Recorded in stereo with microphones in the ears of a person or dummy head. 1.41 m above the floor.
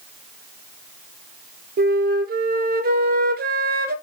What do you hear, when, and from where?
1.8 s a flute: 45° right (ahead or behind), 0.6 m